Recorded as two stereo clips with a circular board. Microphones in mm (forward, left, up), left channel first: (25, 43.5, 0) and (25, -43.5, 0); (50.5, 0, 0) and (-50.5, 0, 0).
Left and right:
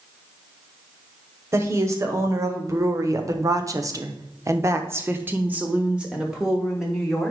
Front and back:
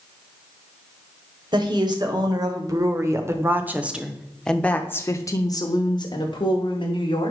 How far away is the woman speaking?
About 1.7 m.